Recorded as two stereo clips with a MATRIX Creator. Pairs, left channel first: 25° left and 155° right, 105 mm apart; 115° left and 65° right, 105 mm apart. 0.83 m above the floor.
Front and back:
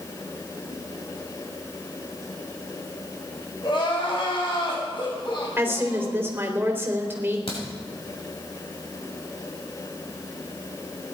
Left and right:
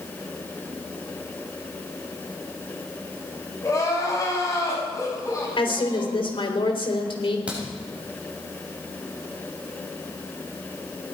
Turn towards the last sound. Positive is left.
turn(degrees=10)